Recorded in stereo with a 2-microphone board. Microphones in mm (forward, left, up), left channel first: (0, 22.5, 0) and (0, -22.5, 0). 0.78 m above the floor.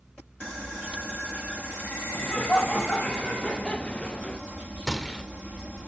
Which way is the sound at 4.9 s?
5° left (ahead or behind).